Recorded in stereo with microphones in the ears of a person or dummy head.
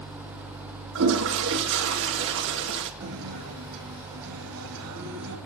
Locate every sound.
0.9 s a toilet flushing: 65° right (ahead or behind), 2.5 m
3.0 s a guitar: 75° right (ahead or behind), 4 m